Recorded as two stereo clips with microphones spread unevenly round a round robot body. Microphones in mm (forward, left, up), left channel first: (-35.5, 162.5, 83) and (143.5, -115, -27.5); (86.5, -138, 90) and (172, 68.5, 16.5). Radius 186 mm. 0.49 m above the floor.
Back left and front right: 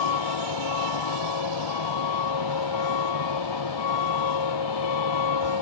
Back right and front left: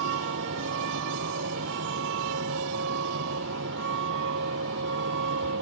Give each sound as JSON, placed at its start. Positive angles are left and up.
{"t": 0.0, "sound": "a vehicle", "azimuth_deg": 115}